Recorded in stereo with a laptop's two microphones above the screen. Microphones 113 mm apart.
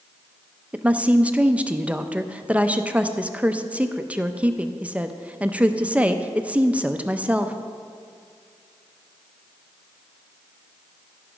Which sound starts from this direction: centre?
A woman speaking, at 0.7 s.